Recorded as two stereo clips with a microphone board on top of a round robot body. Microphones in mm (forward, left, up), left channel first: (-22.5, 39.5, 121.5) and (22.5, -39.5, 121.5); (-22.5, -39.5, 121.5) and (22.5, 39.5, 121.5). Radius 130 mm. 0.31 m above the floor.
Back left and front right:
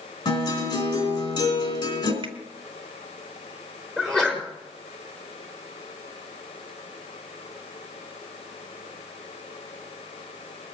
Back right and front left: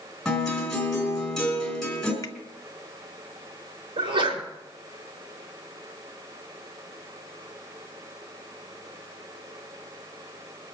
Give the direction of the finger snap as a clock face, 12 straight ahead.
2 o'clock.